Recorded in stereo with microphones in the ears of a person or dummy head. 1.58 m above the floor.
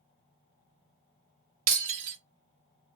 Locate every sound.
1.7 s breaking glass: 35° right (ahead or behind), 1.1 m